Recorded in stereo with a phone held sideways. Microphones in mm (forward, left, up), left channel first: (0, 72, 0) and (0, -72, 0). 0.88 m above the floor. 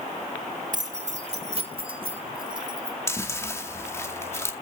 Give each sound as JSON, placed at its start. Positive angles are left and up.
{"t": 0.7, "sound": "keys jangling", "side_deg": -60, "distance_m": 1.5}
{"t": 3.1, "sound": "chewing", "side_deg": 20, "distance_m": 2.0}